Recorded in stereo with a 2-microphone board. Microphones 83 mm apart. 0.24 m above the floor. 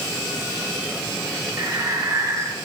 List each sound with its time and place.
1.6 s breathing: 35° right (ahead or behind), 3 m